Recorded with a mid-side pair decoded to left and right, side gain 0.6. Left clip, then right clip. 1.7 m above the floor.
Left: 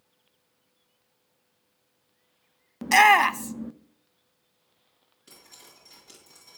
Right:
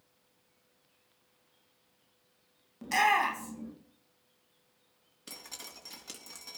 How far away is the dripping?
About 2.5 m.